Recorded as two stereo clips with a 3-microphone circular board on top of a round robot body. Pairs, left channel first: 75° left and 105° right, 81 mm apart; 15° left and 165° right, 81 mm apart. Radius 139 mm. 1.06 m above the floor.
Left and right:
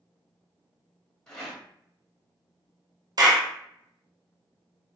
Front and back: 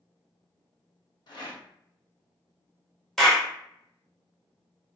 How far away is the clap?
About 0.9 m.